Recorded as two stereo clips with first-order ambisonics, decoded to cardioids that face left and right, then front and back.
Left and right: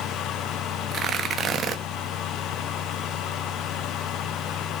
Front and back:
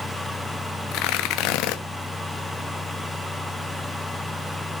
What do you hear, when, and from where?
0.9 s tearing paper: 30° right, 1.0 m